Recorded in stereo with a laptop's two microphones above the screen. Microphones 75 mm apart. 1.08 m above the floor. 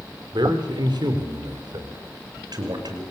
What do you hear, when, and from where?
0.3 s a man speaking: 70° right (ahead or behind), 4 m; by 3.0 s 65° right (ahead or behind), 5.5 m